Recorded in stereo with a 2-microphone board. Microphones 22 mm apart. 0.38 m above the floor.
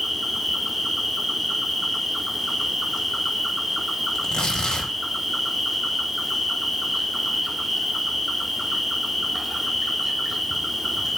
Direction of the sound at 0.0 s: 15° right (ahead or behind).